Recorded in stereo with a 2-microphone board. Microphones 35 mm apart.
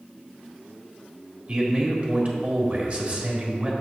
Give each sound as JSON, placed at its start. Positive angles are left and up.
{"t": 1.5, "sound": "a man speaking", "side_deg": -40, "distance_m": 1.4}